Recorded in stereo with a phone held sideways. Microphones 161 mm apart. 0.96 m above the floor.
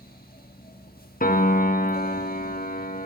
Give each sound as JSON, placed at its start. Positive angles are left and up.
{"t": 0.0, "sound": "a fan", "side_deg": 70, "distance_m": 1.3}
{"t": 1.2, "sound": "a piano", "side_deg": 60, "distance_m": 0.8}